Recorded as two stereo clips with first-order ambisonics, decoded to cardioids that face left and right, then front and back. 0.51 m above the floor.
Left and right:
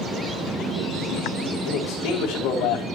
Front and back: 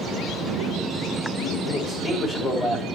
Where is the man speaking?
70° left, 2.5 m.